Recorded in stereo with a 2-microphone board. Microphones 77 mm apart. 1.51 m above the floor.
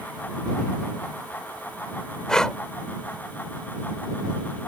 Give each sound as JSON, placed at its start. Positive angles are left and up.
{"t": 2.3, "sound": "breathing", "side_deg": 10}